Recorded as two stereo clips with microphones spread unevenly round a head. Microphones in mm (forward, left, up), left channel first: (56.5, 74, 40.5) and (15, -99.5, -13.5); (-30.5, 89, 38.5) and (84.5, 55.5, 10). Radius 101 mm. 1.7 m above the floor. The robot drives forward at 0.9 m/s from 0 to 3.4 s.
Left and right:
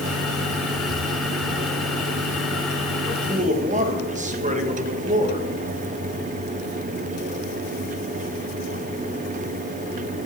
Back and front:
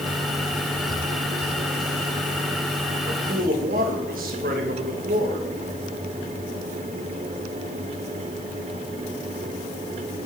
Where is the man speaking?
40° right, 1.8 m; by 5.5 s 50° right, 1.6 m.